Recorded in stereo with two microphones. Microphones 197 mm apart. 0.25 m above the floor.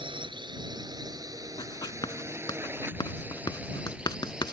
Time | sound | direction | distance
0.0 | a drone | 30° right (ahead or behind) | ?
1.6 | writing | 25° left (ahead or behind) | ?